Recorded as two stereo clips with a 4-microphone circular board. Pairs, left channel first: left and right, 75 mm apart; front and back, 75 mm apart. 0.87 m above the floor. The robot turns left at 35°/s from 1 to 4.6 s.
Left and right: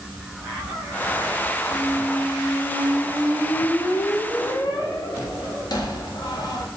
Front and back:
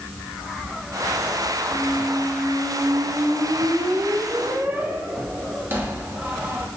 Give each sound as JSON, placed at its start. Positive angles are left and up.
{"t": 1.7, "sound": "a squeak", "azimuth_deg": -145, "distance_m": 0.5}